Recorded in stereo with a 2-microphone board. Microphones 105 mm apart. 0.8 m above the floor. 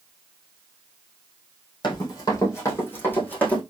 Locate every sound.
1.8 s running footsteps: 40° left (ahead or behind), 1.8 m; by 3.6 s 15° left (ahead or behind), 2.5 m